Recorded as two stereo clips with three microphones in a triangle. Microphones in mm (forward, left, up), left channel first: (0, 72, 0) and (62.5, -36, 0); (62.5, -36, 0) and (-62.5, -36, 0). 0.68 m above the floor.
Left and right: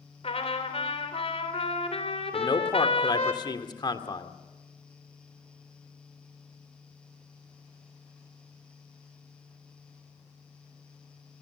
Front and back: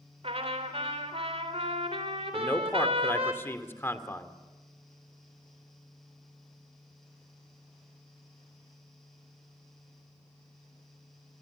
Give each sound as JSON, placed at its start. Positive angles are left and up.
{"t": 0.2, "sound": "a trumpet", "azimuth_deg": 150, "distance_m": 3.0}
{"t": 2.3, "sound": "a man speaking", "azimuth_deg": 70, "distance_m": 1.7}